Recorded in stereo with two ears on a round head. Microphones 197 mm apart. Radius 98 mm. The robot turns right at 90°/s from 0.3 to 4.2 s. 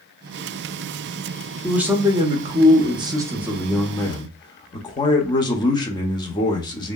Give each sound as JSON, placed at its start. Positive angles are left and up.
{"t": 1.6, "sound": "a man speaking", "side_deg": 0, "distance_m": 0.6}